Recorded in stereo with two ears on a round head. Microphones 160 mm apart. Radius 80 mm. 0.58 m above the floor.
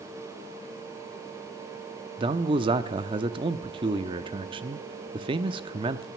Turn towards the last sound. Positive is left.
turn(degrees=-30)  # may be behind; listen again after turning